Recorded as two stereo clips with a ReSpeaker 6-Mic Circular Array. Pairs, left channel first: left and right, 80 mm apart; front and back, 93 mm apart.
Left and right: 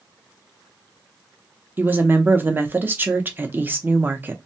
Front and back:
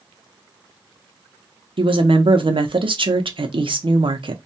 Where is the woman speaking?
155° right, 0.5 m.